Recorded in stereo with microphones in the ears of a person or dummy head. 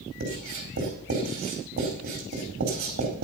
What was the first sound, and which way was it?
Writing, 40° right (ahead or behind).